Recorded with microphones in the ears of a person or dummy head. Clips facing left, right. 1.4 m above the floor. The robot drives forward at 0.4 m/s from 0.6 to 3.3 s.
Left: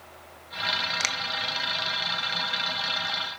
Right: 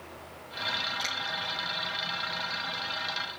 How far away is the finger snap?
About 1.3 m.